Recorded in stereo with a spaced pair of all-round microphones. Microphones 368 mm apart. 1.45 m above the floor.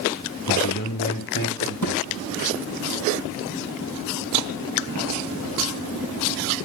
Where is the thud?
65° left (ahead or behind), 5.5 m.